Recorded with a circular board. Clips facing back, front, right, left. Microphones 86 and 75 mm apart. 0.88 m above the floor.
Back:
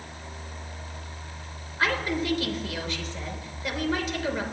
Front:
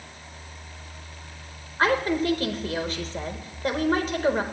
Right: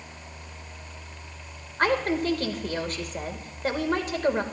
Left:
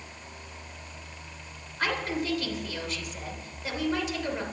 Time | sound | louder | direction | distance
1.8 | a woman speaking | front 5 dB, right 6 dB | 50° right | 3 m